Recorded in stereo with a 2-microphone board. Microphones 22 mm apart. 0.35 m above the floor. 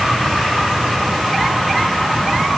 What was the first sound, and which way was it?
Only background noise.